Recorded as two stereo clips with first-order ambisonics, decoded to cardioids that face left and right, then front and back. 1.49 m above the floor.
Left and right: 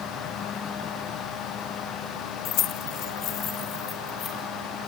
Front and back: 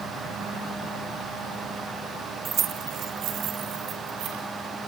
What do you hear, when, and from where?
2.5 s keys jangling: 115° left, 0.7 m; by 4.4 s 145° left, 3.5 m